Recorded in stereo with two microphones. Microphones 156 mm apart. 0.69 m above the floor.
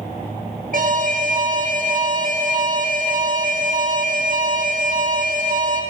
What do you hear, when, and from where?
0.7 s an alarm: 60° right (ahead or behind), 0.9 m